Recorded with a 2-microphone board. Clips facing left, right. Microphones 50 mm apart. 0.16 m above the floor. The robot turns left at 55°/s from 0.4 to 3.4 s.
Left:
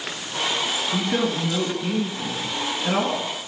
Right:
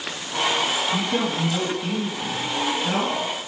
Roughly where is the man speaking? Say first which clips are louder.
Even; behind left.